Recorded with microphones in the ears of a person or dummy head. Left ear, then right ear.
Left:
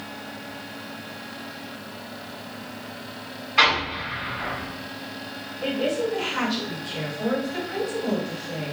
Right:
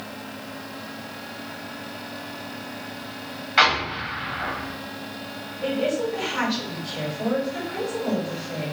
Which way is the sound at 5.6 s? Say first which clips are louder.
Right 1 dB; 5° left (ahead or behind).